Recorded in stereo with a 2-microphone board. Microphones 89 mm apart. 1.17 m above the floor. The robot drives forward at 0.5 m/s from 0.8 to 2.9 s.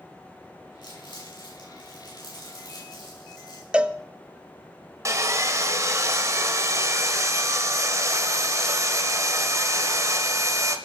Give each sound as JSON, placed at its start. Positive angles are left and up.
{"t": 0.8, "sound": "crumpling", "side_deg": 65, "distance_m": 8.5}
{"t": 3.7, "sound": "a cowbell", "side_deg": -10, "distance_m": 0.6}
{"t": 5.0, "sound": "sawing", "side_deg": -35, "distance_m": 1.1}